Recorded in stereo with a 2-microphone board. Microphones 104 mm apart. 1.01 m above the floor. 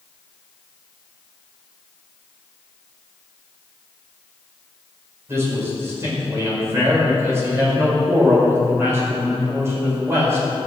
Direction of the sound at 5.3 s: 25° right (ahead or behind).